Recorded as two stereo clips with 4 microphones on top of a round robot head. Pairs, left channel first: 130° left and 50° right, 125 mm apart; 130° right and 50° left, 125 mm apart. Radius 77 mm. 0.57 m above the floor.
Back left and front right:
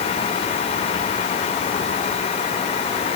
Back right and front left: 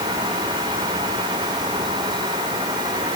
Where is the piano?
No piano in this recording.